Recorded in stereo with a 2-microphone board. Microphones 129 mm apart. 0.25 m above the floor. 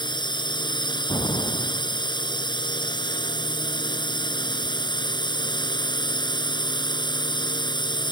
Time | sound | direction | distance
0.0 | a drone | 35° left (ahead or behind) | ?
1.1 | an explosion | 35° left (ahead or behind) | ?